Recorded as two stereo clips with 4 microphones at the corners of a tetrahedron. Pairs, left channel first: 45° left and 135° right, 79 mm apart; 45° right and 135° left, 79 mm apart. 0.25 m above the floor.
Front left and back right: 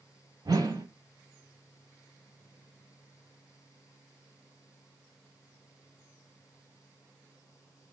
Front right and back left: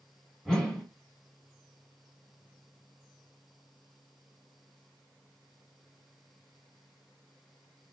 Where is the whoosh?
125° right, 0.9 m.